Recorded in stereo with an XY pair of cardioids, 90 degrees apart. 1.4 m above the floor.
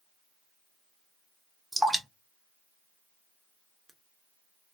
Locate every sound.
1.7 s dripping: 15° right, 0.9 m